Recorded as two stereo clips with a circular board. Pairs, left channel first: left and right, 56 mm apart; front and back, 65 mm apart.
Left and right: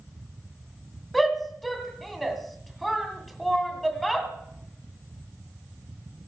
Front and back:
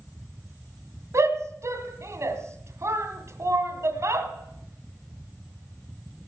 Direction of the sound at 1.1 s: 175° left.